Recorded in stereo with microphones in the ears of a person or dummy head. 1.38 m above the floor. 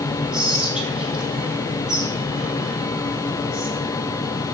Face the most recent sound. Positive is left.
turn(degrees=-5)  # may be behind; listen again after turning